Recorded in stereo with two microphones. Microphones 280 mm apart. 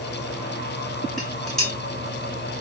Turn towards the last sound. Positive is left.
turn(degrees=0)  # may be behind; listen again after turning